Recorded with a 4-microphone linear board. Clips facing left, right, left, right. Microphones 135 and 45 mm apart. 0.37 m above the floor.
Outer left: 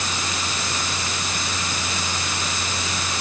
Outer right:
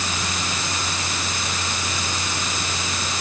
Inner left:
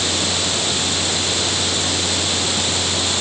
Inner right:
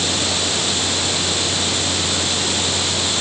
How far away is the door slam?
I don't hear a door slam.